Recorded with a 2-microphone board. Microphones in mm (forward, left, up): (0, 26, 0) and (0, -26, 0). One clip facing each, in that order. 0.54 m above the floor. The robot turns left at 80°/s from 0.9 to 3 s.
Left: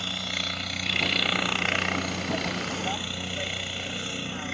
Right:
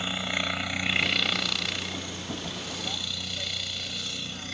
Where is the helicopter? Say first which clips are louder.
Right 2 dB; 160° right; by 4.5 s 30° left.